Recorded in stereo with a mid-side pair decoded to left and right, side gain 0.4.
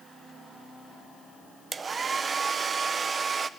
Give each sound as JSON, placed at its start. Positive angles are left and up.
{"t": 1.7, "sound": "a hair dryer", "azimuth_deg": -40, "distance_m": 0.5}